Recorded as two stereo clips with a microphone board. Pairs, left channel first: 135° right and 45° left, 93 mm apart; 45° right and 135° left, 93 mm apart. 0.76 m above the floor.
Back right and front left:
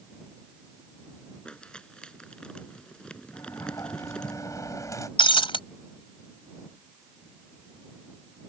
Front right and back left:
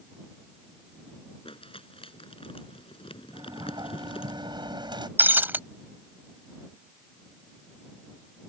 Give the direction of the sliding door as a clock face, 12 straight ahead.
6 o'clock.